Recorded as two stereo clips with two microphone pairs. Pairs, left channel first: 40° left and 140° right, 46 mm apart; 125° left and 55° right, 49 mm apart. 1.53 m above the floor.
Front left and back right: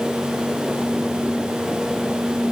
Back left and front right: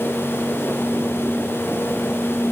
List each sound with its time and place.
Only background noise.